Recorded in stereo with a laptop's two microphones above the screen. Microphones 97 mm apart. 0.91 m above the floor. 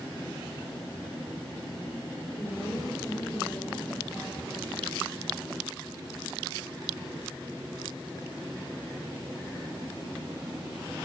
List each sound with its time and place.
2.4 s a woman speaking: 30° left (ahead or behind), 3 m